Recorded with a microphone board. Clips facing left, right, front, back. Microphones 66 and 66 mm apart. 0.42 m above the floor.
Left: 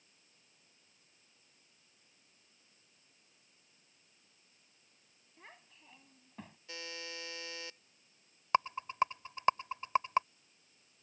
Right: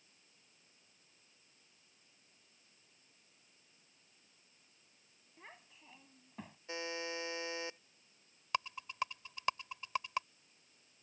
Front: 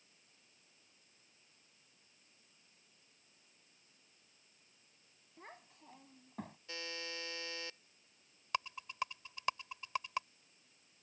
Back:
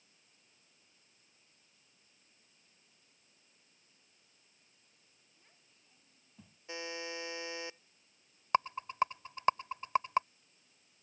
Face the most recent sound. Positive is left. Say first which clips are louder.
# left 8 dB, back 9 dB
turn(degrees=140)